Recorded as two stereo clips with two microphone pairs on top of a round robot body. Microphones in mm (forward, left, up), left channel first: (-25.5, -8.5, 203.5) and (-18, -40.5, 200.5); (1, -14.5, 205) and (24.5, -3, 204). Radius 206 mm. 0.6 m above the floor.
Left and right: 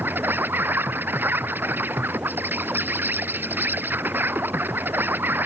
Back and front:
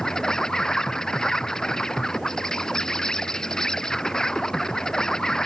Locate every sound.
0.0 s an insect: 85° right